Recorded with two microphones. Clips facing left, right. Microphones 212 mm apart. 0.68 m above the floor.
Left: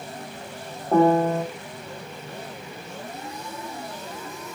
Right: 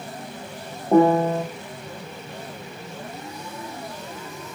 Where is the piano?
15° right (ahead or behind), 0.9 m.